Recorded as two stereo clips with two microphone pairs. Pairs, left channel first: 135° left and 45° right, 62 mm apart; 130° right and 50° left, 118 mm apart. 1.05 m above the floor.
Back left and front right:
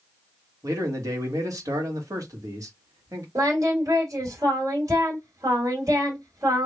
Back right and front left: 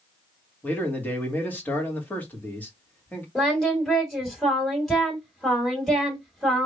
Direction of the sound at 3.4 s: 40° right.